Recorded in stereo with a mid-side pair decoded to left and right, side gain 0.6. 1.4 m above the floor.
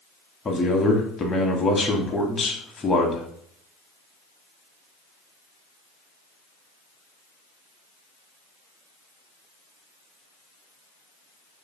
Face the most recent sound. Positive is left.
turn(degrees=25)